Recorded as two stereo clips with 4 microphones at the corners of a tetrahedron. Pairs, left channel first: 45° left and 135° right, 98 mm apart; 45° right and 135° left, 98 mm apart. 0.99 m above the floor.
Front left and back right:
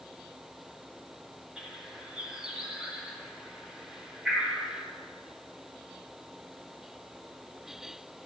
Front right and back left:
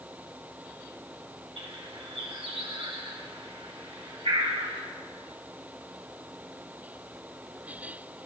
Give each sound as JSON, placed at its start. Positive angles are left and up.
{"t": 1.6, "sound": "a bird", "azimuth_deg": 140, "distance_m": 2.5}